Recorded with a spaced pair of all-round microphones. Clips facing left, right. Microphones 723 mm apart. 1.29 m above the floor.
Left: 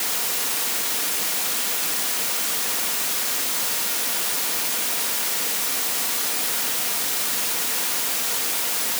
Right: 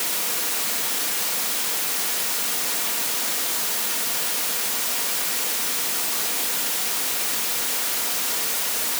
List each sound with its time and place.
Only background noise.